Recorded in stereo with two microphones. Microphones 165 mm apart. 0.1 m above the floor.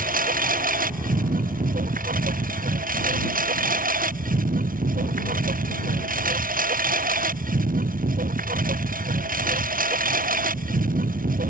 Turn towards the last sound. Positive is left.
turn(degrees=-55)  # may be behind; listen again after turning